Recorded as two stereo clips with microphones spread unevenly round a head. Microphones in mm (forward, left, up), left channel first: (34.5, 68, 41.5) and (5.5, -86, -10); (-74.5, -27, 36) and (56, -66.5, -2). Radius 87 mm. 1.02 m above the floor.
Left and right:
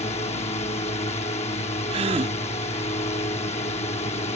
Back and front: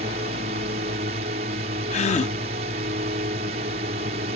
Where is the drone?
25° left.